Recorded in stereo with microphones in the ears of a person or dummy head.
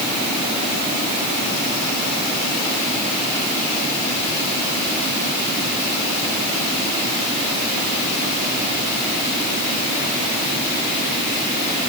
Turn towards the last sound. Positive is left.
No sound to turn to.